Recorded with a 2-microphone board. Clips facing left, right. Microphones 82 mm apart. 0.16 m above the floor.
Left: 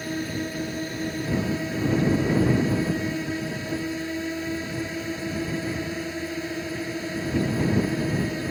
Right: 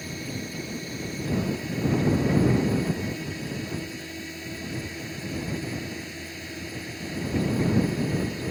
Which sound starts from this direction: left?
A drone, at 0.0 s.